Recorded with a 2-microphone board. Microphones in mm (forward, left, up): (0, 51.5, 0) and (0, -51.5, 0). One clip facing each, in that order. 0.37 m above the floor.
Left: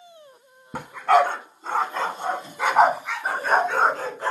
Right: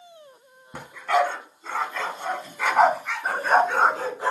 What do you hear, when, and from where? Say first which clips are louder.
0.7 s a dog barking: left 4 dB; 60° left (ahead or behind), 1.5 m; by 4.3 s 10° right (ahead or behind), 2 m